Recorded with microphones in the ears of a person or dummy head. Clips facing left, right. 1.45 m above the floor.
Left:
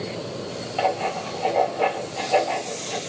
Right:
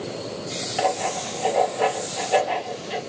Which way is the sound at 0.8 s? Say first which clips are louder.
Even; 20° right (ahead or behind).